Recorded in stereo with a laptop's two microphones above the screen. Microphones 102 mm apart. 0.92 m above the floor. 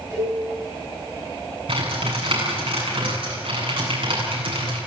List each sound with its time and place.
0.1 s a cowbell: 35° right (ahead or behind), 7.5 m
1.7 s typing on a keyboard: 70° right (ahead or behind), 8.5 m